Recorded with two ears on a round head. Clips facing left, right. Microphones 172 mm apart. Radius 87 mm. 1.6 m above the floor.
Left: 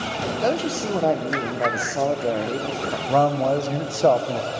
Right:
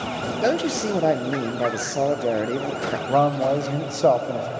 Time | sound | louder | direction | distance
0.4 | a man speaking | right 2 dB | 10° right (ahead or behind) | 0.6 m
3.1 | a man speaking | left 1 dB | centre (ahead or behind) | 0.6 m